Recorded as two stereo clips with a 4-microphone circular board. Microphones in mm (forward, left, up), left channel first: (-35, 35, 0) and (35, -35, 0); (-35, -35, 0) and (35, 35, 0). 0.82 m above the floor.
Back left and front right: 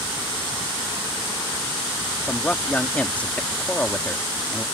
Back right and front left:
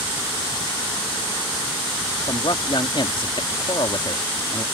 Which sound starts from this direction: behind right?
A man speaking, at 2.2 s.